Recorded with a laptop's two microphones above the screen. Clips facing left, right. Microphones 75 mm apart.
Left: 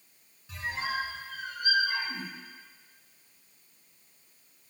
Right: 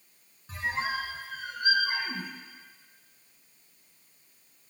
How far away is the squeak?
About 2.5 m.